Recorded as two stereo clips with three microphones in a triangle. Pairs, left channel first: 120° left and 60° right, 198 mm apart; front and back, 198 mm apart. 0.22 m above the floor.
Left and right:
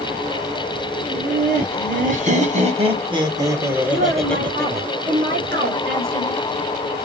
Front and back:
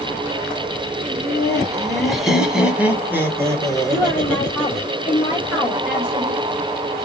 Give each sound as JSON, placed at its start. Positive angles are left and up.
{"t": 1.1, "sound": "laughter", "azimuth_deg": -85, "distance_m": 2.0}
{"t": 3.9, "sound": "a woman speaking", "azimuth_deg": -95, "distance_m": 4.0}